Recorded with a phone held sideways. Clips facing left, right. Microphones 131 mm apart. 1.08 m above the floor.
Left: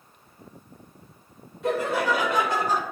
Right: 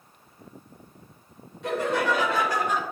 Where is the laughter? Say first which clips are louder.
Left 1 dB; 5° left (ahead or behind), 1.7 m; by 2.8 s 45° left (ahead or behind), 0.6 m.